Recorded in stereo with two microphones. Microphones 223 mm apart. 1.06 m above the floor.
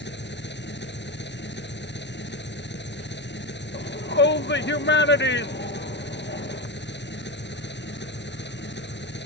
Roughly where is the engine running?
Left.